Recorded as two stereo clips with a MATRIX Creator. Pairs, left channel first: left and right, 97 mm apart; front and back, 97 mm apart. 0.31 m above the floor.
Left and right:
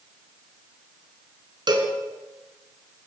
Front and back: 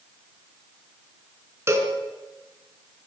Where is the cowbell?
120° right, 4 m.